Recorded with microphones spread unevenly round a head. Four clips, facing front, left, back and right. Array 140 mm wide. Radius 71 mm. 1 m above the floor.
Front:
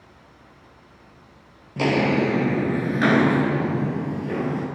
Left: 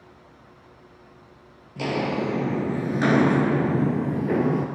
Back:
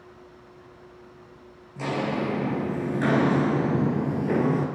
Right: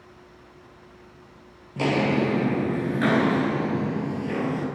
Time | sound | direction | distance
1.8 | footsteps | 20° right | 1.4 m